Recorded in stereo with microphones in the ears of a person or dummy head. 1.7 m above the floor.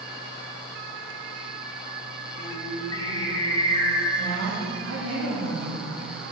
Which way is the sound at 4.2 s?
75° right (ahead or behind).